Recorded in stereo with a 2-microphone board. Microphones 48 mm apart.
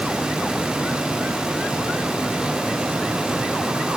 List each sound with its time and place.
Only background noise.